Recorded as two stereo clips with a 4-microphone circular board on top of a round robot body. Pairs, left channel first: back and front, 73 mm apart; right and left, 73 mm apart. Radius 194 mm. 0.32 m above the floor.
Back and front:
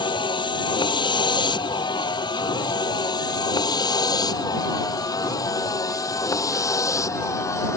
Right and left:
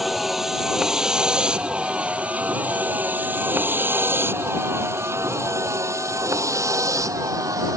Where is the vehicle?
Straight behind; by 7.8 s 130° left.